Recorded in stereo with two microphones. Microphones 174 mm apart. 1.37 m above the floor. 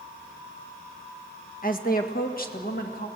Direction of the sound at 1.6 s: 55° left (ahead or behind).